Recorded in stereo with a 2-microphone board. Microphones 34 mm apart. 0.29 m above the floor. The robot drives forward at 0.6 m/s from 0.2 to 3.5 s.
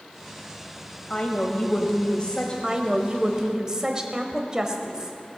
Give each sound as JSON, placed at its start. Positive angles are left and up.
{"t": 1.1, "sound": "a woman speaking", "side_deg": 30, "distance_m": 1.1}
{"t": 2.6, "sound": "a woman speaking", "side_deg": -20, "distance_m": 1.0}